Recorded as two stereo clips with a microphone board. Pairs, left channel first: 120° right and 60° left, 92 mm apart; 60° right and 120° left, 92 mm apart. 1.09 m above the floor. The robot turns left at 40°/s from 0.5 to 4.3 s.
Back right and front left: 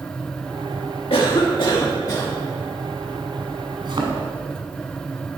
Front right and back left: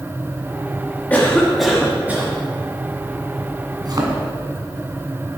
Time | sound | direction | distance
1.1 | a cough | 130° right | 1.5 m
3.8 | a thud | 85° left | 1.9 m